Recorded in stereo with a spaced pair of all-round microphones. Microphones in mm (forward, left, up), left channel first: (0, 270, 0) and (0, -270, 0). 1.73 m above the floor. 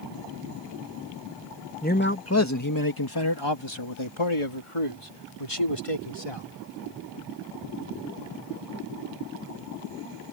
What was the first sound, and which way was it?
A man speaking, 15° left (ahead or behind).